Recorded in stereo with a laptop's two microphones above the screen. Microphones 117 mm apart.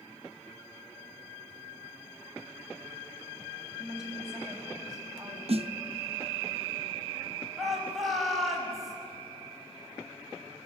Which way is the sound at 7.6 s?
Centre (ahead or behind).